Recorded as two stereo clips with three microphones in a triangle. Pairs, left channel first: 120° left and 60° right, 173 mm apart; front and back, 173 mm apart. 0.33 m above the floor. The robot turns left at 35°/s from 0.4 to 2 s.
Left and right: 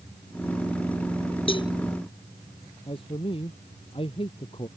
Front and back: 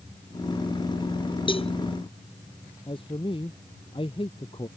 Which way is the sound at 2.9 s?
60° left.